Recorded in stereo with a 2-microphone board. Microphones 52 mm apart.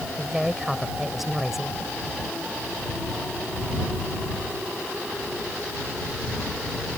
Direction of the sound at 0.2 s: 5° right (ahead or behind).